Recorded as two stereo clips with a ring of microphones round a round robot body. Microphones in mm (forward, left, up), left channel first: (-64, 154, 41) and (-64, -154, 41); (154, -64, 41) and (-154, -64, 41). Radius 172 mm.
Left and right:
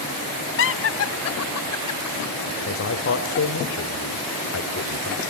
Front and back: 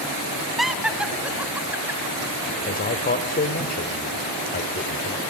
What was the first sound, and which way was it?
Laughter, 90° left.